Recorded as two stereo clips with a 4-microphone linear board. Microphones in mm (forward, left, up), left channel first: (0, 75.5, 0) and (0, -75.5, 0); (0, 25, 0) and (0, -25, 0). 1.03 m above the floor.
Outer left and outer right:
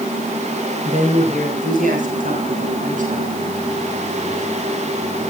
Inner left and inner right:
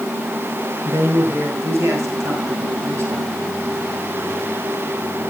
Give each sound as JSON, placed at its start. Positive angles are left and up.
{"t": 0.8, "sound": "a man speaking", "side_deg": -60, "distance_m": 5.5}